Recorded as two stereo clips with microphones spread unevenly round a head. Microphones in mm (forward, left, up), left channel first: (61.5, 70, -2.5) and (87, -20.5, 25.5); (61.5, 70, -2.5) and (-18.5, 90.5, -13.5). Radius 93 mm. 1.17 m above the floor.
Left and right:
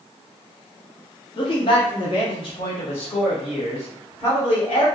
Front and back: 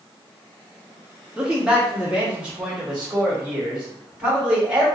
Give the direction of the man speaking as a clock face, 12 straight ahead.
9 o'clock.